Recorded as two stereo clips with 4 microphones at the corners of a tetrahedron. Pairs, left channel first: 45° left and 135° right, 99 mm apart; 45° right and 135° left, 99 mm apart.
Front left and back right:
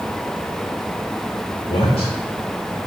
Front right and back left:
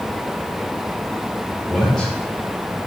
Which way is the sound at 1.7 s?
40° left.